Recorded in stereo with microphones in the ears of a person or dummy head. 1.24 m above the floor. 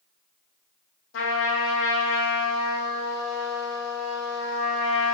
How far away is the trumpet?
About 0.8 m.